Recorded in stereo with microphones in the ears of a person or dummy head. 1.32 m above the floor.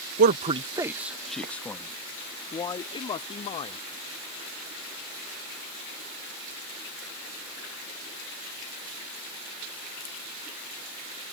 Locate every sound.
0.2 s a man speaking: 55° right (ahead or behind); by 3.8 s 30° left (ahead or behind)